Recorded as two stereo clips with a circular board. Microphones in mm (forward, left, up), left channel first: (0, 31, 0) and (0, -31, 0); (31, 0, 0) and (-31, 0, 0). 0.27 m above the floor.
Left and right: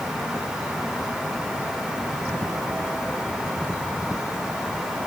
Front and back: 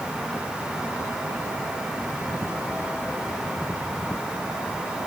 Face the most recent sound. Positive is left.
No sound to turn to.